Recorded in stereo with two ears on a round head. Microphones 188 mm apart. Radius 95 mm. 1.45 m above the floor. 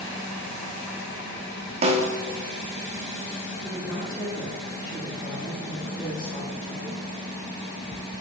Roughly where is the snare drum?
Right.